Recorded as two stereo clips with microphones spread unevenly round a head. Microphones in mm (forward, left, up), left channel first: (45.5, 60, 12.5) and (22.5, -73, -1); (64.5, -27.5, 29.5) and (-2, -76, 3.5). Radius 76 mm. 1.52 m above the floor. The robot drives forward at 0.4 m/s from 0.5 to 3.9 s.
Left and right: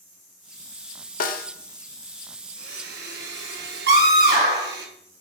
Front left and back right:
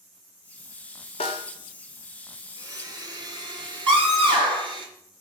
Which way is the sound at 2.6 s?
95° right.